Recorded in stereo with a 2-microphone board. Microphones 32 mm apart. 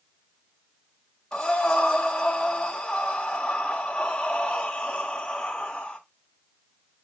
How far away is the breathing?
About 2.5 m.